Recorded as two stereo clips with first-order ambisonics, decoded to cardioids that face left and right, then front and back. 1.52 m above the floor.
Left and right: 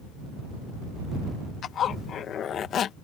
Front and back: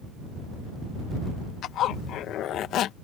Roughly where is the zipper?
Ahead left.